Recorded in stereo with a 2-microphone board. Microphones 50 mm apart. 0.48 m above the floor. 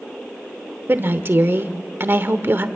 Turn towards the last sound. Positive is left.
turn(degrees=-45)  # may be behind; listen again after turning